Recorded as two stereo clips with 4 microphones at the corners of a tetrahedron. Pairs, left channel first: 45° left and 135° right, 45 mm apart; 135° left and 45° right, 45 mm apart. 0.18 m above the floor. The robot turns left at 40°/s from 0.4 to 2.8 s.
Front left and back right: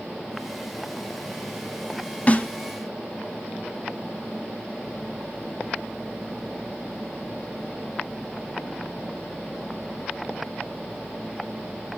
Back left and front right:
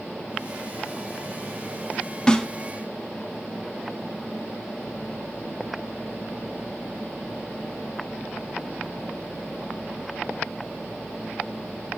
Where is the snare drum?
75° left, 0.5 m; by 2.5 s 65° left, 0.5 m.